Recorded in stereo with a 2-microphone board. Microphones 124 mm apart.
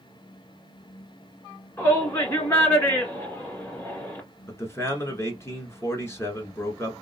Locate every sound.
1.8 s a shout: 20° left (ahead or behind), 1.6 m
4.5 s a man speaking: 20° left (ahead or behind), 1.1 m